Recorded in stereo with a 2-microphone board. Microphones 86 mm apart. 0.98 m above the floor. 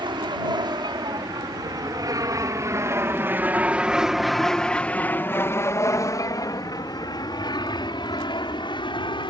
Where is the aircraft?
65° right (ahead or behind); by 9.3 s 65° left (ahead or behind).